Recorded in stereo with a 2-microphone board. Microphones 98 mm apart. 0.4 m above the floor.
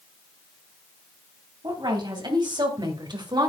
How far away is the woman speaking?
About 3 m.